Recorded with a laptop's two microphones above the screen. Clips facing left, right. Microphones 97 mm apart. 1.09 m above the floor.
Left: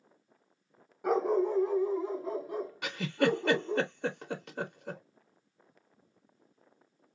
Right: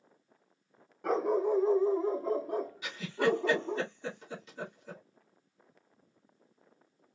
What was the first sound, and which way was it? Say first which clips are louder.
A dog barking: left 1 dB; 5° left (ahead or behind).